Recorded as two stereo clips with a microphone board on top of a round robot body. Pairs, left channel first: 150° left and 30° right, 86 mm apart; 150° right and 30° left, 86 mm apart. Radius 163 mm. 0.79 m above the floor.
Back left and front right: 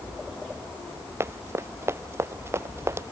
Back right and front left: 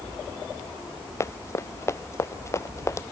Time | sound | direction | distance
1.2 | running footsteps | 95° right | ?